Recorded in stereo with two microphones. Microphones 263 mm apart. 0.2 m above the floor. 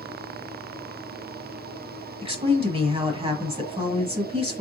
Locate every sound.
2.2 s a woman speaking: 20° right (ahead or behind), 1.3 m